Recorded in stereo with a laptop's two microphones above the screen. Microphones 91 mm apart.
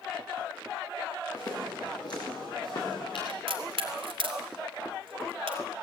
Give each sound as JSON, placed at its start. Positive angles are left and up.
{"t": 1.3, "sound": "footsteps", "side_deg": 40, "distance_m": 6.0}
{"t": 3.3, "sound": "a crack", "side_deg": -80, "distance_m": 2.5}